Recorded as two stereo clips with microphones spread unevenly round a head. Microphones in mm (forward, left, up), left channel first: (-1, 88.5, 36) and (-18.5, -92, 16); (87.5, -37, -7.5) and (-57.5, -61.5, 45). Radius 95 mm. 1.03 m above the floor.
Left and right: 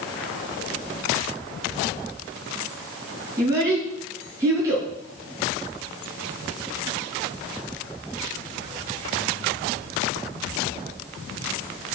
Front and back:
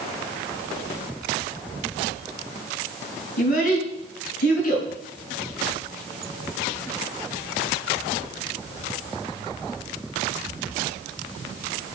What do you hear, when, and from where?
3.4 s a child speaking: 20° right, 7 m